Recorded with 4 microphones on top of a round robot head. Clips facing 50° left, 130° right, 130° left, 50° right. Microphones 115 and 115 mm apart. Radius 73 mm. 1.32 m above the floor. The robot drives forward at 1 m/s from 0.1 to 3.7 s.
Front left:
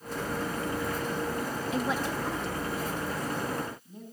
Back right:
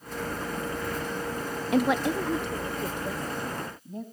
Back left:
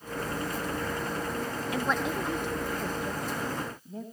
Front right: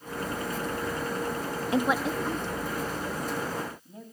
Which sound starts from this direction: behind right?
A woman speaking, at 1.7 s.